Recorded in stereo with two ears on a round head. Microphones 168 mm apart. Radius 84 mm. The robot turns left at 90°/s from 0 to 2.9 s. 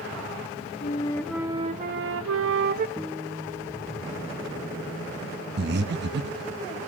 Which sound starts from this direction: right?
Breathing, at 5.6 s.